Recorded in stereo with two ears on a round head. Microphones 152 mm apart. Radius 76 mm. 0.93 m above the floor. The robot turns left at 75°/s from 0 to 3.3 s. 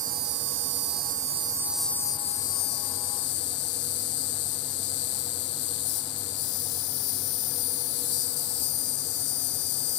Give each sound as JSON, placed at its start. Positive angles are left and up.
{"t": 0.0, "sound": "an insect", "azimuth_deg": -45}